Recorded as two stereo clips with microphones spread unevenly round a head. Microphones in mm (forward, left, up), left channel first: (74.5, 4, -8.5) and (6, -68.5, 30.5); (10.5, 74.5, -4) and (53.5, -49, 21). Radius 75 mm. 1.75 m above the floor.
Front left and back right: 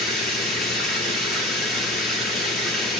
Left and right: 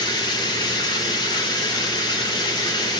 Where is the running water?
170° left, 1.4 m.